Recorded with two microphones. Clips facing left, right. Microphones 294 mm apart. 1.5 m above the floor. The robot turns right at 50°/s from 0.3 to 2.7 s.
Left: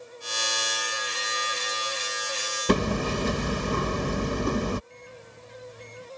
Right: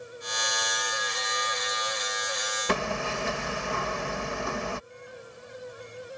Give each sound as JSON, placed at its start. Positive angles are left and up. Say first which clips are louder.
{"t": 2.7, "sound": "hammering", "louder": "left 7 dB", "side_deg": 45}
{"t": 4.9, "sound": "a microwave", "louder": "right 2 dB", "side_deg": 30}